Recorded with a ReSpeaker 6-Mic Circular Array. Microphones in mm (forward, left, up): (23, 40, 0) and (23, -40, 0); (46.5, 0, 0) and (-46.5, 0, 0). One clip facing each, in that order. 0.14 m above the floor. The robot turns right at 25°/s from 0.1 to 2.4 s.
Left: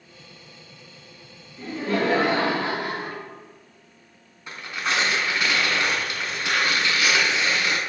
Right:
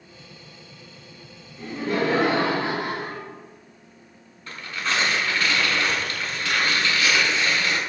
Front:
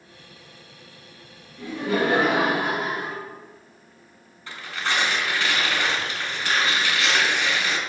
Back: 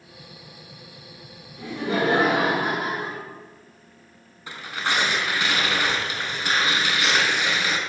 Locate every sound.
1.6 s laughter: 145° right, 1.2 m; by 3.2 s 125° right, 1.2 m
4.5 s tearing paper: 135° left, 0.7 m